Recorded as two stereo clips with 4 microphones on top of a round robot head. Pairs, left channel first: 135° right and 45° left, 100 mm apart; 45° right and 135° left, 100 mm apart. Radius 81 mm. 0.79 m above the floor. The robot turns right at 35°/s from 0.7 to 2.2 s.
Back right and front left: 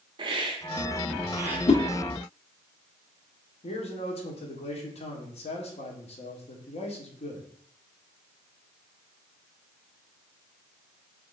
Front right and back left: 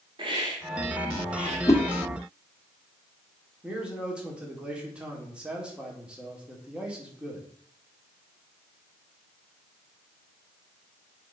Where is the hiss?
85° left, 1.1 m; by 1.6 s 115° left, 1.1 m.